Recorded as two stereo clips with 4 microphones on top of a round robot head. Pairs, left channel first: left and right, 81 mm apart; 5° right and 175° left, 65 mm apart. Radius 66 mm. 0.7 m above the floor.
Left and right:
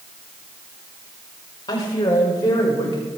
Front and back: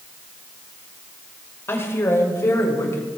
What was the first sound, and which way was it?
A woman speaking, 50° left.